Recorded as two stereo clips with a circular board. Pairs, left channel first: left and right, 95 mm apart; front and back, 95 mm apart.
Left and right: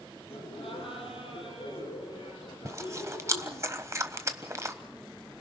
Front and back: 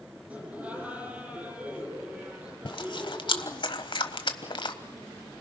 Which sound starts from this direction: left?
Laughter, at 0.3 s.